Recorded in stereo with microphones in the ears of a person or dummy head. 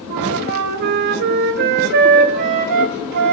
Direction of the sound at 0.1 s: 55° right (ahead or behind).